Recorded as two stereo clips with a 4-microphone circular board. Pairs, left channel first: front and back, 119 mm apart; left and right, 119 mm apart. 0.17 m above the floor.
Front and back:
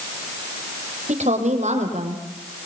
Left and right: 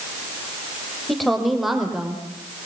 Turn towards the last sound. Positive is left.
turn(degrees=-175)